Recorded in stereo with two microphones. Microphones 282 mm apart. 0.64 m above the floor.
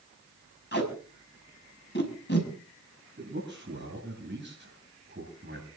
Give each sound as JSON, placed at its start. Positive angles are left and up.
{"t": 0.7, "sound": "tape being pulled", "side_deg": 40, "distance_m": 6.0}
{"t": 3.2, "sound": "a man speaking", "side_deg": -35, "distance_m": 9.5}